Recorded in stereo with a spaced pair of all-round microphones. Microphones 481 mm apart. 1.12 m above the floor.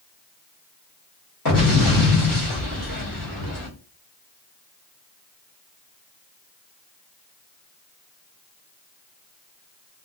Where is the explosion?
45° left (ahead or behind), 1.3 m.